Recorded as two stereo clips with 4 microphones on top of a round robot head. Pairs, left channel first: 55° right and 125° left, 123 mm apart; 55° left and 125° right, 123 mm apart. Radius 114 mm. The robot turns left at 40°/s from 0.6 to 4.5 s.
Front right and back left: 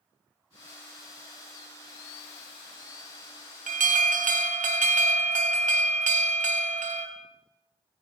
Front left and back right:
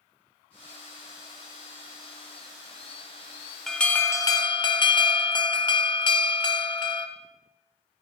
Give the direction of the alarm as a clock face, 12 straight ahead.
7 o'clock.